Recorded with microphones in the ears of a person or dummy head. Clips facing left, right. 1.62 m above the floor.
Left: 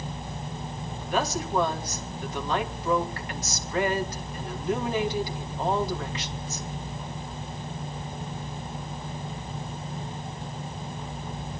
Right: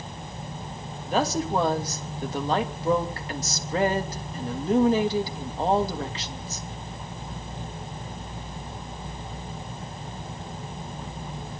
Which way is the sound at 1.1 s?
30° right (ahead or behind).